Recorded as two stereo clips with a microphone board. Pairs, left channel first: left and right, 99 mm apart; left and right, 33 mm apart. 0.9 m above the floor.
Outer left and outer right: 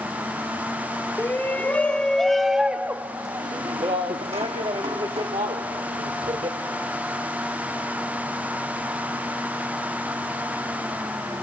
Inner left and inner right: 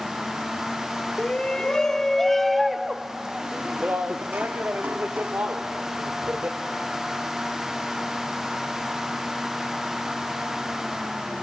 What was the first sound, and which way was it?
A shout, 20° left (ahead or behind).